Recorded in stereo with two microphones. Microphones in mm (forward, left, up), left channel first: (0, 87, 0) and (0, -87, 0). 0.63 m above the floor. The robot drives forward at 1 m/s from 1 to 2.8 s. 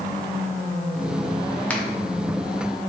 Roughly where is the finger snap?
Centre.